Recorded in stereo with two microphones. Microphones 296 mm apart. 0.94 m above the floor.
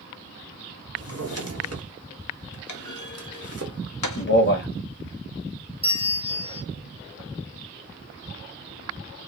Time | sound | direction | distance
1.0 | a drawer | 55° right (ahead or behind) | 0.8 m
2.7 | a clunk | 75° left (ahead or behind) | 0.7 m
4.2 | a man speaking | 40° left (ahead or behind) | 0.8 m
5.8 | a bell | 20° right (ahead or behind) | 1.3 m